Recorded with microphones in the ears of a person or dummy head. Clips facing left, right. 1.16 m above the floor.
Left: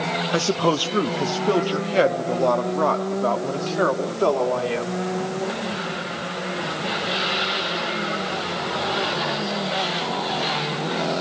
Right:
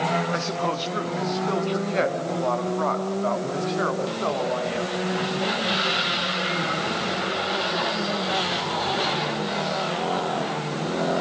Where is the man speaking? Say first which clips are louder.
Left 6 dB; 55° left (ahead or behind), 0.8 m; by 5.0 s 50° left (ahead or behind), 3.5 m.